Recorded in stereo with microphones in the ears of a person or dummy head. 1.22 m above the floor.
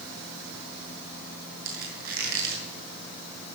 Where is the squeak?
55° right (ahead or behind), 6 m.